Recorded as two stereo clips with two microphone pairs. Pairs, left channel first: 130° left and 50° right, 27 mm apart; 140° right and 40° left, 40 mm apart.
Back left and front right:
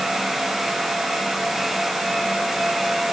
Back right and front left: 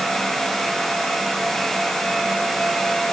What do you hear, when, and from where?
Only background noise.